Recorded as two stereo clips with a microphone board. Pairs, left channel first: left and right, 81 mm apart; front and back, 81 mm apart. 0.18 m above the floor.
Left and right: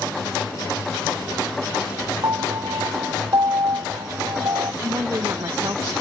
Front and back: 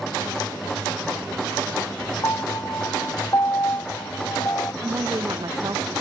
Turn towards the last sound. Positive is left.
turn(degrees=-140)